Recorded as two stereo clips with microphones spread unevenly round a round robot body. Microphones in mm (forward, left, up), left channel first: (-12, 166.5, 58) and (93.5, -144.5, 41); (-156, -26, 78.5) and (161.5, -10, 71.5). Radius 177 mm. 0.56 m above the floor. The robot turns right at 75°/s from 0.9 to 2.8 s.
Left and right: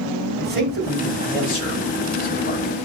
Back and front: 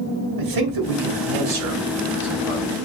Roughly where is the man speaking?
Ahead.